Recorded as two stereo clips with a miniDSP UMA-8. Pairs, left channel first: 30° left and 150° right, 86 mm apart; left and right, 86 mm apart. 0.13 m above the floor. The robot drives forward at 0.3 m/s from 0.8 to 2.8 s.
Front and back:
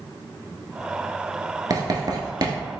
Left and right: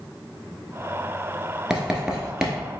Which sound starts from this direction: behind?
Writing, at 1.7 s.